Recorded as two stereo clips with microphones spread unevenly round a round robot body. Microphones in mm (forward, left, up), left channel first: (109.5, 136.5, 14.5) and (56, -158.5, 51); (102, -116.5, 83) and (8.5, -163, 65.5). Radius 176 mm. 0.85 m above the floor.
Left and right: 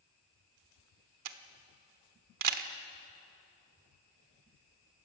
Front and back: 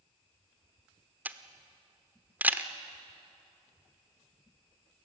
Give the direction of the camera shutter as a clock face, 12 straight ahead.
3 o'clock.